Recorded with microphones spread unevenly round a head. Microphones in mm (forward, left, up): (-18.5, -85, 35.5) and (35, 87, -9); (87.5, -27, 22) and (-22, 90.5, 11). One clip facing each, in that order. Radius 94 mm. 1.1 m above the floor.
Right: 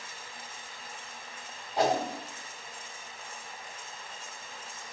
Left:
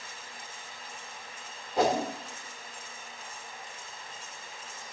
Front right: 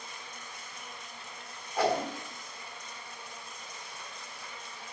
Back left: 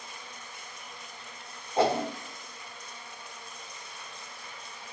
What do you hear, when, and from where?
1.8 s a whoosh: 70° left, 1.2 m